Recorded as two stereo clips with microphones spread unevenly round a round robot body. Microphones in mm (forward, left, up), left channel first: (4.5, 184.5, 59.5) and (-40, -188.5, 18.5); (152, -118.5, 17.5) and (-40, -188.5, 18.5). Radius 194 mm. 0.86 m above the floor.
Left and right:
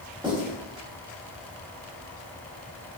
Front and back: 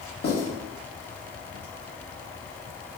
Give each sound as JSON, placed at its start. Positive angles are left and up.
{"t": 0.2, "sound": "writing", "azimuth_deg": -20, "distance_m": 1.5}